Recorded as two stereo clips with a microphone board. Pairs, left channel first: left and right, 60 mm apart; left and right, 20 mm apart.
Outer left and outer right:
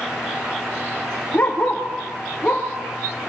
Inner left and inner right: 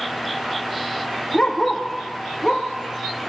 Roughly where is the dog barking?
Left.